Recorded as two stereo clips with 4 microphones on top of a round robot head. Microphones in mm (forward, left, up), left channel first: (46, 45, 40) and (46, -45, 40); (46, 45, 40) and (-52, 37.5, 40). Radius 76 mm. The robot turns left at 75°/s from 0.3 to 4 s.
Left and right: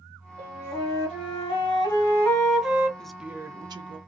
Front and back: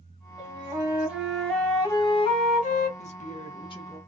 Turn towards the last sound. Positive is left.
turn(degrees=-70)